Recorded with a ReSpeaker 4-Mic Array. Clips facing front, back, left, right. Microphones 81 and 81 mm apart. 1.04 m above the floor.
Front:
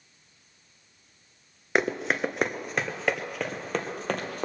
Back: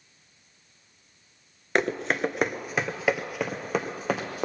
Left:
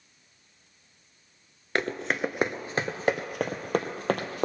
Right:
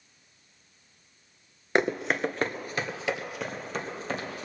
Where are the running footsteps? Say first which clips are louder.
Even, right 3 dB; 75° right, 1.0 m; by 4.5 s 100° left, 2.5 m.